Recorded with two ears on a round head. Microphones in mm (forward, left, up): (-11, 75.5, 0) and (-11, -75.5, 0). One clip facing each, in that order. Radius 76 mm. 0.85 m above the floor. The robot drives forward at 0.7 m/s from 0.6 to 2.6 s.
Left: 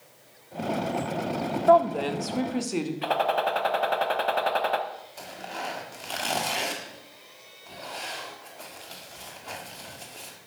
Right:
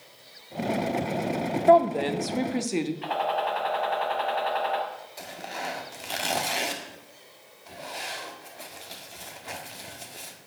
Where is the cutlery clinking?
No cutlery clinking in this recording.